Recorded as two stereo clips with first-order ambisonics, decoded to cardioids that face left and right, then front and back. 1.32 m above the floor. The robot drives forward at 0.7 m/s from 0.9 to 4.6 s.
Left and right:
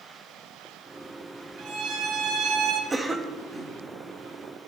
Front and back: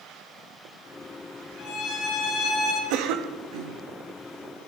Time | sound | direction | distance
1.6 | a violin | 50° right | 4 m
2.9 | a cough | 170° right | 1.5 m